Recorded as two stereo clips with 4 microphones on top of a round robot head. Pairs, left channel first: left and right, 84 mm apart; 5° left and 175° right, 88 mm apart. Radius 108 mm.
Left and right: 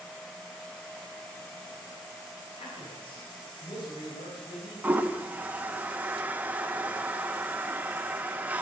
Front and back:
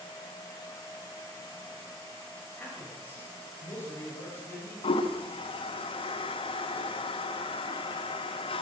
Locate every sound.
2.6 s a man speaking: 75° left, 5 m; by 5.0 s 65° left, 6 m
4.8 s a toilet flushing: 15° right, 1.1 m